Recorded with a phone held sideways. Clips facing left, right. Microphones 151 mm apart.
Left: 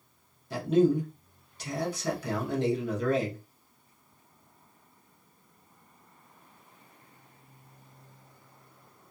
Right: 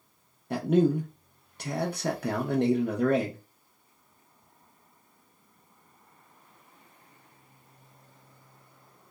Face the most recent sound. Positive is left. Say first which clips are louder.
# even
turn(degrees=-60)  # may be behind; listen again after turning